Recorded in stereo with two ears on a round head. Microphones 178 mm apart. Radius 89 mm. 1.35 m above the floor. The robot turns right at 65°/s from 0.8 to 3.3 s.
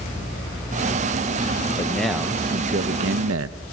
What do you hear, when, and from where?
1.8 s a man speaking: 160° left, 0.8 m; by 3.6 s 100° right, 0.8 m